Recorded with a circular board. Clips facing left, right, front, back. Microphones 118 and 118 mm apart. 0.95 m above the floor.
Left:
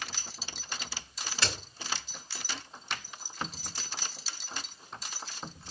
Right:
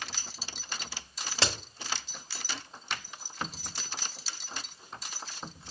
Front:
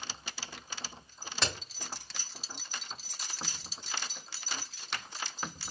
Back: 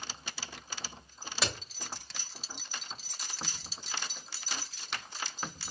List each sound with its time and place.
1.4 s a crack: 95° right, 1.1 m